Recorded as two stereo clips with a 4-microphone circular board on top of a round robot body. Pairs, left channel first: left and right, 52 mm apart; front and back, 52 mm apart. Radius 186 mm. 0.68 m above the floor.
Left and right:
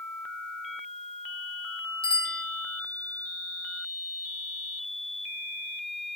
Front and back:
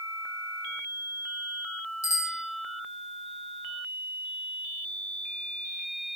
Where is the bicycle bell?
20° left, 4 m.